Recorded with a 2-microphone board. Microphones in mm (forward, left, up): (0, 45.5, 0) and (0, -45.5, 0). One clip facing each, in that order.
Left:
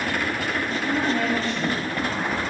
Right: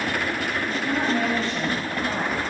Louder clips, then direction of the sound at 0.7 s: Even; 20° right (ahead or behind).